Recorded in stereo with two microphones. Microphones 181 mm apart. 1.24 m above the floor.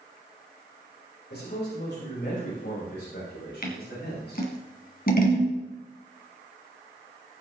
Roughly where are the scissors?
Left.